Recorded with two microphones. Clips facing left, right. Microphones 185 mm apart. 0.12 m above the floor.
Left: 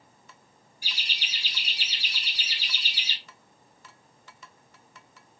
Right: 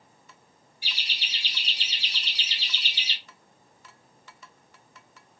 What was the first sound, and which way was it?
Laughter, 25° right (ahead or behind).